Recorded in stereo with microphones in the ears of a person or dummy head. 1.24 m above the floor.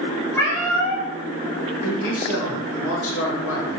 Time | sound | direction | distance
0.3 | a cat meowing | 15° left (ahead or behind) | 1.0 m
1.8 | a man speaking | 70° left (ahead or behind) | 1.2 m